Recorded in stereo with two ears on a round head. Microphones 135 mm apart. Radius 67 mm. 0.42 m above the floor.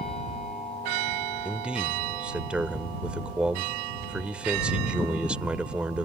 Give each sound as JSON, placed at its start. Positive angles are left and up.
{"t": 1.4, "sound": "a man speaking", "side_deg": -5}